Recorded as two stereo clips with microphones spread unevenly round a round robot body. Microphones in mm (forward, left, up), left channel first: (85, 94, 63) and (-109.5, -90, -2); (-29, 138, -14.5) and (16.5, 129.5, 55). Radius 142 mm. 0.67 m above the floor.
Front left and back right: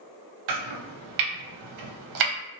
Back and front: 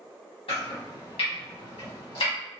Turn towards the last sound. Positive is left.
turn(degrees=-120)